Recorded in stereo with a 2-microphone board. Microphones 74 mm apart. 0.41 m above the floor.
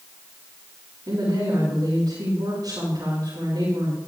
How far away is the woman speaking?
About 6 m.